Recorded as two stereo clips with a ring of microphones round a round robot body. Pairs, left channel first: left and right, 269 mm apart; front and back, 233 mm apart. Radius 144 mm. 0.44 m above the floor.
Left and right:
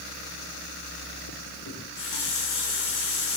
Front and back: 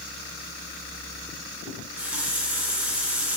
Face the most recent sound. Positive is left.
turn(degrees=95)